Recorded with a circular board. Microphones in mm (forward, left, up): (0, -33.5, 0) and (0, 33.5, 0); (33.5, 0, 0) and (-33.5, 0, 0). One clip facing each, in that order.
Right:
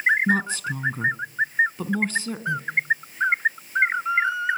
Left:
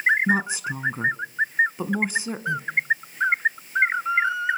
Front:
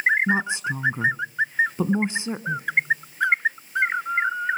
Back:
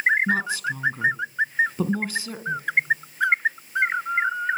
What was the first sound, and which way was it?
A woman speaking, 35° left.